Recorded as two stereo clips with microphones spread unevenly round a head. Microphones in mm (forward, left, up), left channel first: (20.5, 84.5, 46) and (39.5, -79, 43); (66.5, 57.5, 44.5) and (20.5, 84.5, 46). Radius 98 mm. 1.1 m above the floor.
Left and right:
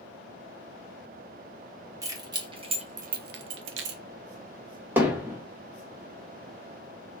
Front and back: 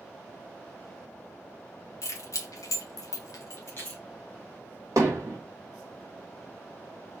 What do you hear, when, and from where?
2.0 s keys jangling: 15° right, 1.5 m; by 4.0 s 115° right, 0.7 m
5.0 s hammering: 165° right, 1.1 m